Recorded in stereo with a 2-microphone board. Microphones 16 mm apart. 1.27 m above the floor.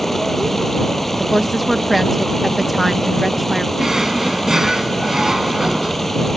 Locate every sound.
0.0 s running water: 25° left (ahead or behind)
1.2 s a woman speaking: 15° right (ahead or behind)
3.8 s a drawer: 30° right (ahead or behind)